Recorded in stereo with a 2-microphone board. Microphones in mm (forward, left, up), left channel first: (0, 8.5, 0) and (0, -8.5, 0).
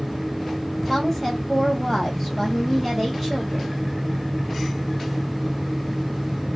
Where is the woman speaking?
15° right (ahead or behind), 1.5 m.